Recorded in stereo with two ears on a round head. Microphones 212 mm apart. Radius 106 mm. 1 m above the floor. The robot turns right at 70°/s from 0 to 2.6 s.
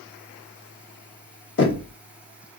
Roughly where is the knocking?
Left.